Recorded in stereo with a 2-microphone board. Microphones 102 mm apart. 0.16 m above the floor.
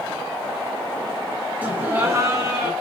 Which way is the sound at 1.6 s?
15° right (ahead or behind).